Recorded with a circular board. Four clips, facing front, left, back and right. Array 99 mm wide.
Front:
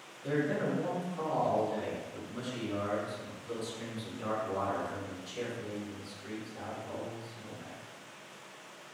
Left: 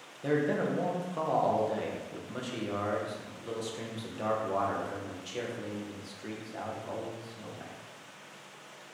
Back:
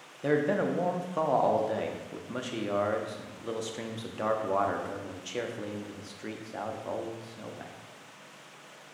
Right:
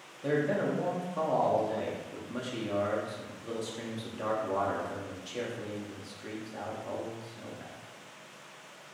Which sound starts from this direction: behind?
A man speaking, at 0.2 s.